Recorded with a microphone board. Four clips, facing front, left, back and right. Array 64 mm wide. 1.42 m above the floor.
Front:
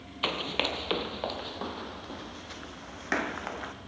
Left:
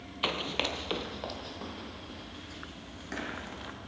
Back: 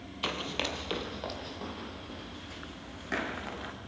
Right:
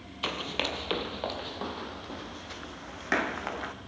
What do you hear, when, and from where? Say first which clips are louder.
0.2 s running footsteps: even, front 3 dB; 30° left, 1.5 m; by 3.7 s 55° right, 3.5 m